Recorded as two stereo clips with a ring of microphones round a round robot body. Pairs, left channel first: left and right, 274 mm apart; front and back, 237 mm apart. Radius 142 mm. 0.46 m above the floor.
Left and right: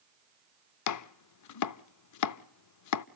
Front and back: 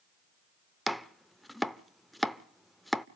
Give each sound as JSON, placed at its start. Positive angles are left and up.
{"t": 0.9, "sound": "chopping", "azimuth_deg": 90, "distance_m": 0.6}